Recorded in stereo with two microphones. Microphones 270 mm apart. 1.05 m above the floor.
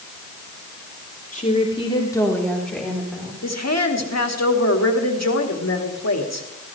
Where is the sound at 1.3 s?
30° left (ahead or behind), 3 m; by 3.3 s 5° right (ahead or behind), 4.5 m.